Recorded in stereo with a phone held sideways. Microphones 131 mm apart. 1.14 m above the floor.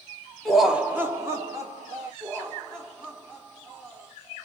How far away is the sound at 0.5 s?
About 0.6 m.